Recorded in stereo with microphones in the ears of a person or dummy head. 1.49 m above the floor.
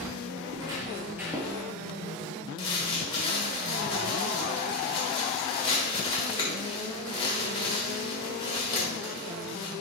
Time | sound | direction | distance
0.5 | footsteps | 25° right (ahead or behind) | 1.7 m
2.6 | crumpling | 25° left (ahead or behind) | 1.4 m